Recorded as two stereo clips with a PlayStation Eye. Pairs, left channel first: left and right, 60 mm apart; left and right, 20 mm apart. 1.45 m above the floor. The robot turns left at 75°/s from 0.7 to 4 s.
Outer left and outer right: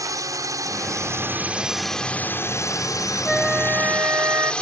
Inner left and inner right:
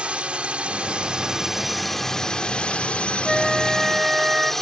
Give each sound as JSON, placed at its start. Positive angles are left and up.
{"t": 0.0, "sound": "a drone", "azimuth_deg": -95}
{"t": 3.2, "sound": "a flute", "azimuth_deg": 5}